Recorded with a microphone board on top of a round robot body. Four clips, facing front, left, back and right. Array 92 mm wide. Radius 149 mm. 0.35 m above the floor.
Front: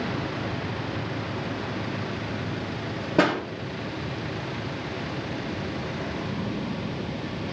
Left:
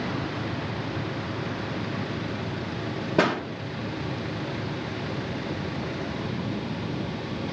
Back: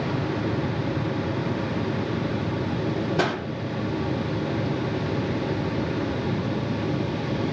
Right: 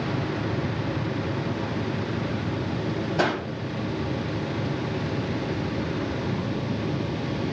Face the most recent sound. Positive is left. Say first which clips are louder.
# left 2 dB, front 6 dB
turn(degrees=45)